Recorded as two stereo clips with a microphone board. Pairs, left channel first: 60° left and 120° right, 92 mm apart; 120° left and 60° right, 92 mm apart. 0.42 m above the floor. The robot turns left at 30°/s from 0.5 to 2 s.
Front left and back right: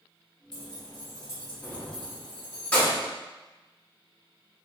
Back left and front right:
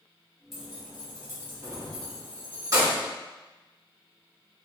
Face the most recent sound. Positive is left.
turn(degrees=-15)